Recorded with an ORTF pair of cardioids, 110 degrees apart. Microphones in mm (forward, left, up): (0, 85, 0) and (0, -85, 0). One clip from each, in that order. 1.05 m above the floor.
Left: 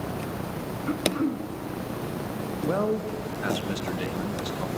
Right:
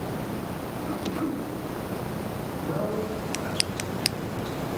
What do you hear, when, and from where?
0.9 s throat clearing: 60° left, 0.9 m
2.6 s a man speaking: 70° left, 0.9 m